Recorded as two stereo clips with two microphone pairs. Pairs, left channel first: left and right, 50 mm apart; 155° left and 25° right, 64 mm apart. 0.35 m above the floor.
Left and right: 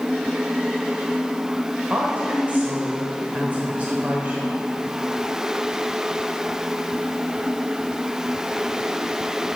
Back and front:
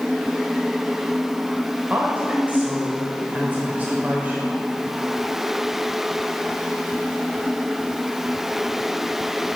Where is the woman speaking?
70° right, 0.9 m.